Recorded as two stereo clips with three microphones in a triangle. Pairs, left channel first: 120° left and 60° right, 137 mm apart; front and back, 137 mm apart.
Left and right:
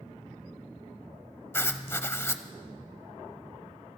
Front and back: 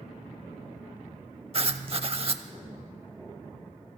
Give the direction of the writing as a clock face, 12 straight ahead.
6 o'clock.